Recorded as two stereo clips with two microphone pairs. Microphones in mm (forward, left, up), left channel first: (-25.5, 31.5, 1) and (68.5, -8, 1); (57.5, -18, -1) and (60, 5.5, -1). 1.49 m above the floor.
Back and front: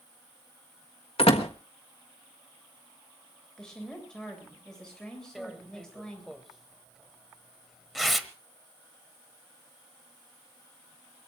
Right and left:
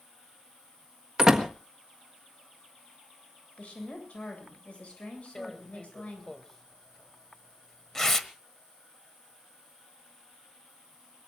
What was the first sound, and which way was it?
A door slam, 145° left.